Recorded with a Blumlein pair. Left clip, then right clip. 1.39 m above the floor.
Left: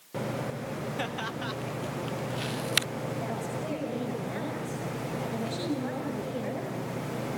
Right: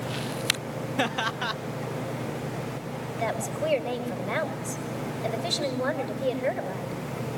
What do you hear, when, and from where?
1.0 s laughter: 70° right, 0.9 m
3.2 s a woman speaking: 35° right, 5.5 m